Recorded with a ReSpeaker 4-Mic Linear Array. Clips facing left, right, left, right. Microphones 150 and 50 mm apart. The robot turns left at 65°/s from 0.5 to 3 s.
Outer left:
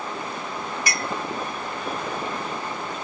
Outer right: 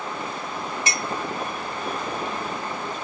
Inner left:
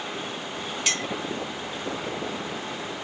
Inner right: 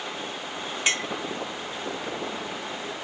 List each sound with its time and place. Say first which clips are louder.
0.9 s a clink: even, inner right 3 dB; 20° right (ahead or behind), 0.5 m; by 1.1 s 15° right (ahead or behind), 0.5 m